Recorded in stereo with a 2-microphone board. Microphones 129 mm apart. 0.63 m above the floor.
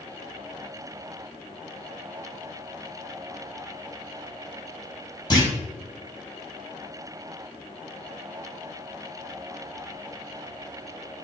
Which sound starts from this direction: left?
A clunk, at 5.3 s.